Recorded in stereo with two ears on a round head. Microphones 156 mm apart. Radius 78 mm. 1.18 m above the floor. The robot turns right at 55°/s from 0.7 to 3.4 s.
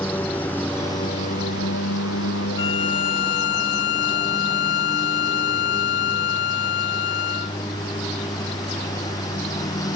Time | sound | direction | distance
0.0 | a lawn mower | 10° left | ?
2.6 | a violin | 30° left | ?